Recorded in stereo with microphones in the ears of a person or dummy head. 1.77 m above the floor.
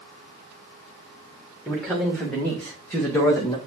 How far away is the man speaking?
About 3 m.